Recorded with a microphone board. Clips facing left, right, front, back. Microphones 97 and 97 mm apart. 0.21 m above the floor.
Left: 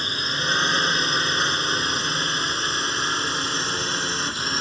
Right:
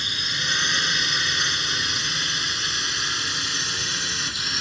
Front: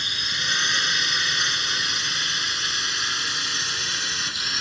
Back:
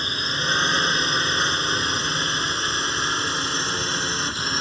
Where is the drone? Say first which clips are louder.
Left 4 dB, back 5 dB; 135° left.